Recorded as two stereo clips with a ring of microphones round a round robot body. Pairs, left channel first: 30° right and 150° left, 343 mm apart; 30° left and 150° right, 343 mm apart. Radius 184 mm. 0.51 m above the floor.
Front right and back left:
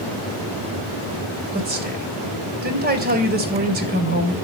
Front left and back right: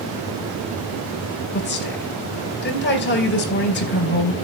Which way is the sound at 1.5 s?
90° left.